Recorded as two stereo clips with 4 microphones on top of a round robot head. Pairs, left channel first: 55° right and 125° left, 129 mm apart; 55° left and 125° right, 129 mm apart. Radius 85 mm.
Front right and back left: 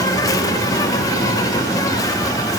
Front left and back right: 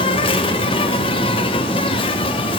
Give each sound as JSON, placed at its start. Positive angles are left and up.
{"t": 0.0, "sound": "an insect", "azimuth_deg": 10, "distance_m": 0.7}